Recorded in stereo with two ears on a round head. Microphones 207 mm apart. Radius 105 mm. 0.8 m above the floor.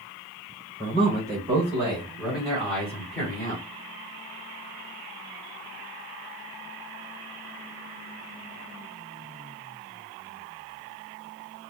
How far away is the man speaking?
About 3.5 m.